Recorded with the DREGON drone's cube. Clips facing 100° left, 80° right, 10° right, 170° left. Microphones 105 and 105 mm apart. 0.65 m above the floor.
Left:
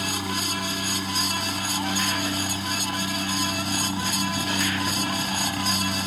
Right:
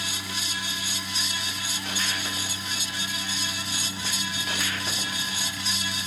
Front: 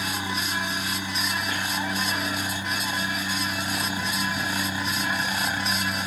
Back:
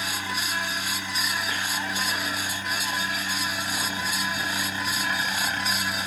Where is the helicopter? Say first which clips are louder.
Left 7 dB, front 2 dB; 65° left; by 6.1 s 70° left.